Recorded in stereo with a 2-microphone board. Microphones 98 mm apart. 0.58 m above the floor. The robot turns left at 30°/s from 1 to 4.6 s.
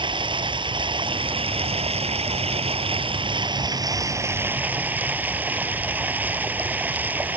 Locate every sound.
0.0 s running water: 55° right; by 7.4 s 165° right